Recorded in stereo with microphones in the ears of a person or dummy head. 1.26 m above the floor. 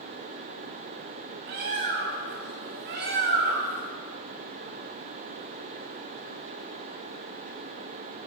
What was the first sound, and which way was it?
A bird, 40° right (ahead or behind).